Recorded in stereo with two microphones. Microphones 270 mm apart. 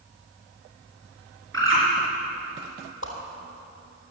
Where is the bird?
45° right (ahead or behind), 4 m.